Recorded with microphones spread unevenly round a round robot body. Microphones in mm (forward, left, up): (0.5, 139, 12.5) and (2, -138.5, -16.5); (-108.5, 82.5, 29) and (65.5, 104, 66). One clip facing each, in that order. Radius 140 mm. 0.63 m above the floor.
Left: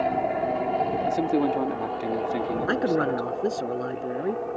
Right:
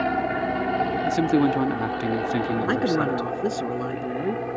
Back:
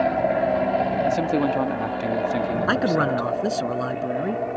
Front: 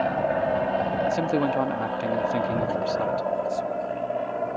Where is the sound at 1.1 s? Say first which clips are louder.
Right 4 dB, back 2 dB; 100° right.